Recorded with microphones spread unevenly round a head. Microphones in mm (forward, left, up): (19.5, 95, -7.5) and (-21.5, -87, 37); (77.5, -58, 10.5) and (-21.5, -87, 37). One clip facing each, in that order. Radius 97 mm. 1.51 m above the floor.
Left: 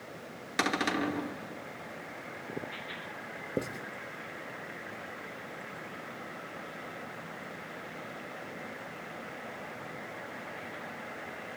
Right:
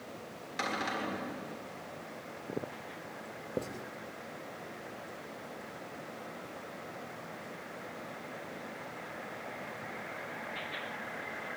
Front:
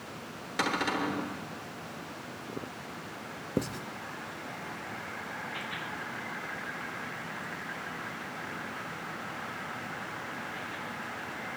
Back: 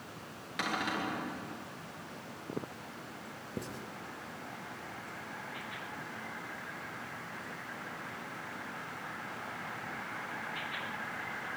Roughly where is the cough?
No cough in this recording.